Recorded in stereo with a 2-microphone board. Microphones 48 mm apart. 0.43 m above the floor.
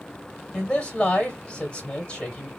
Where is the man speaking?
25° left (ahead or behind), 2 m.